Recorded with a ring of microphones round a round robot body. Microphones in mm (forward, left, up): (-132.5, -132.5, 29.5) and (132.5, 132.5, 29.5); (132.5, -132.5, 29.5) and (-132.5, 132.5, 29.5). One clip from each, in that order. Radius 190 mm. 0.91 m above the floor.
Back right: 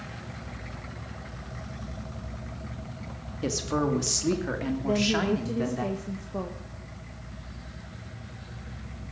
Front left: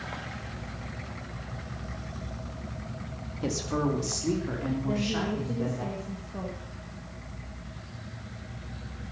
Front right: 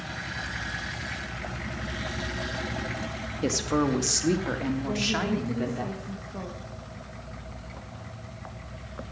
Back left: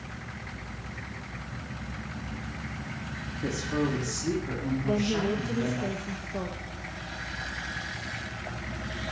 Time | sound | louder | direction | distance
3.4 | a woman speaking | back right 2 dB, front right 4 dB | 60° right | 2 m
4.8 | a woman speaking | back right 7 dB, even | 175° right | 1.3 m